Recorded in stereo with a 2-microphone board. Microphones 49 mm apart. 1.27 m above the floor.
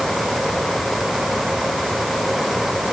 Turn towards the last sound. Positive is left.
No sound to turn to.